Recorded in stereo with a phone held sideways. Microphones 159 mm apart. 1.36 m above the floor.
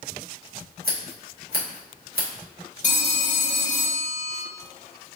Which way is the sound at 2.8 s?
50° left (ahead or behind).